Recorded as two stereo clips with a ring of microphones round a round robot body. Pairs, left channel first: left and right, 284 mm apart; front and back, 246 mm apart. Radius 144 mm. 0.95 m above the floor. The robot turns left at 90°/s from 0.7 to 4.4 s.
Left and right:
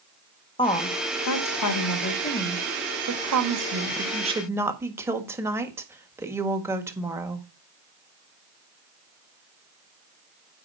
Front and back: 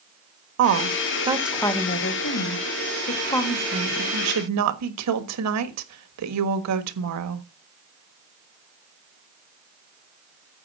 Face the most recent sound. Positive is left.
turn(degrees=-170)